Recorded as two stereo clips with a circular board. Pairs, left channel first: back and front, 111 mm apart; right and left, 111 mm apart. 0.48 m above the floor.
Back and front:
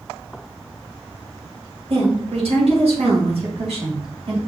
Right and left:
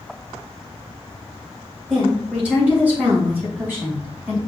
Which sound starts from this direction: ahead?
A woman speaking, at 1.9 s.